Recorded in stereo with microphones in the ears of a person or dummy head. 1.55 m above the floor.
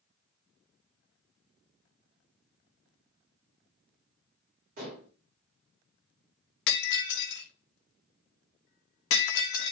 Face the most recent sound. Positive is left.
turn(degrees=65)  # may be behind; listen again after turning